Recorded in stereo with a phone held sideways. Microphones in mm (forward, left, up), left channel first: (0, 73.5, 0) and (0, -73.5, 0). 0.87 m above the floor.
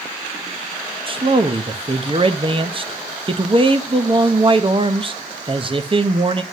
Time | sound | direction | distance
1.1 | a man speaking | 35° right (ahead or behind) | 0.7 m